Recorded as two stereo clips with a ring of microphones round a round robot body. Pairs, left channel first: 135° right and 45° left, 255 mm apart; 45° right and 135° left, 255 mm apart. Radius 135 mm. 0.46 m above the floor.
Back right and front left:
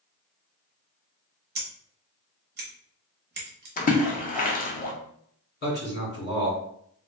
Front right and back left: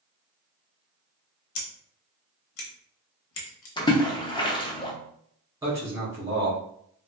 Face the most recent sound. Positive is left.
turn(degrees=-150)